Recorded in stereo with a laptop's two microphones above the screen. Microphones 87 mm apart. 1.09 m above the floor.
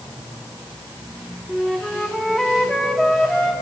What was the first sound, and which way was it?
A flute, 5° left (ahead or behind).